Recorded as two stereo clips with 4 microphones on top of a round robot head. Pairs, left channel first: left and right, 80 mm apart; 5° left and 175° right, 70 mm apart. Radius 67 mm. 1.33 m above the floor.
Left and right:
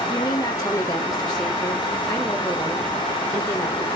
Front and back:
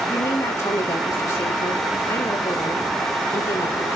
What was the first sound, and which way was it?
A woman speaking, 35° left.